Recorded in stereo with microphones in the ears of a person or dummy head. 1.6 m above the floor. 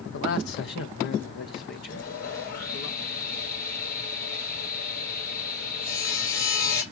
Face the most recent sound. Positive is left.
turn(degrees=70)  # may be behind; listen again after turning